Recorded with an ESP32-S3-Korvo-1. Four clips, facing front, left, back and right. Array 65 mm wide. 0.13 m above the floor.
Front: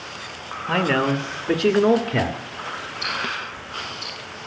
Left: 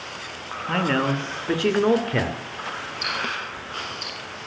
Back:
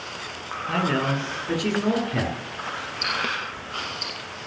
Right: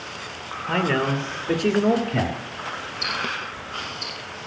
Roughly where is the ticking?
Behind left.